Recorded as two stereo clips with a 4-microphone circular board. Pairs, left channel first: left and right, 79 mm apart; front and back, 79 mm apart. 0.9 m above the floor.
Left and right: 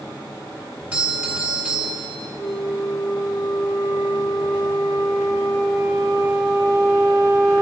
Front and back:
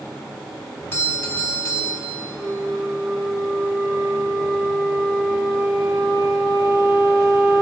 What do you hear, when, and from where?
0.9 s a doorbell: 30° right, 1.6 m
2.4 s a flute: 110° right, 5 m